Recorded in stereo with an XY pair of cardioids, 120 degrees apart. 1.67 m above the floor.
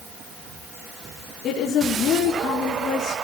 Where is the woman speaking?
55° left, 5 m.